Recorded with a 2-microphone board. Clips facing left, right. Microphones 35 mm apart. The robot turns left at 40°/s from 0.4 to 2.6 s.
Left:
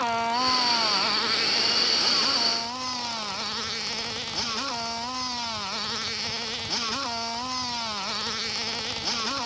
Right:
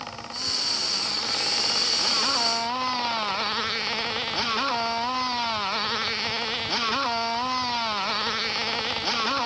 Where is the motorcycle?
65° left (ahead or behind); by 9.5 s 15° right (ahead or behind).